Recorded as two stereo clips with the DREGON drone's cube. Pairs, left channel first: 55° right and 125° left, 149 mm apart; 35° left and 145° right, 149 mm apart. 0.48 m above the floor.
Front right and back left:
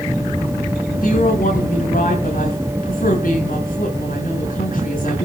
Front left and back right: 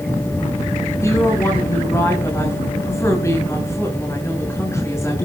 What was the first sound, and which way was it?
A woman speaking, 35° right.